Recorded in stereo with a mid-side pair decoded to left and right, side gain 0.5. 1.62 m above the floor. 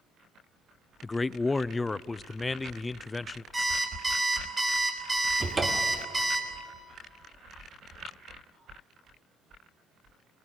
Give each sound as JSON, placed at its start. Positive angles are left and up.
{"t": 1.0, "sound": "a man speaking", "azimuth_deg": 25, "distance_m": 0.6}
{"t": 3.5, "sound": "an alarm clock", "azimuth_deg": -15, "distance_m": 3.0}
{"t": 5.4, "sound": "a cupboard door", "azimuth_deg": -25, "distance_m": 2.5}